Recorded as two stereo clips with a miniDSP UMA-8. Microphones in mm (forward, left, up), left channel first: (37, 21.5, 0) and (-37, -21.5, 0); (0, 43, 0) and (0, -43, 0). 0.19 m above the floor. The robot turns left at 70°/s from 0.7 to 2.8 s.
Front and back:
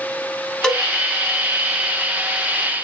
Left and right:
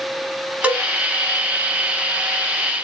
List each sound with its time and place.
0.6 s a cowbell: 35° right, 0.6 m; by 0.9 s 50° right, 0.6 m